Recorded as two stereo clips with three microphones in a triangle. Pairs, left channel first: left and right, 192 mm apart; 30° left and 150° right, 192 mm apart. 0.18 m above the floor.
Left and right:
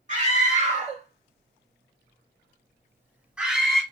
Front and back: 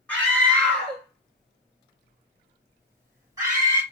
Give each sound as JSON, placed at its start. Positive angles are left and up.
{"t": 0.1, "sound": "a scream", "azimuth_deg": -50, "distance_m": 2.0}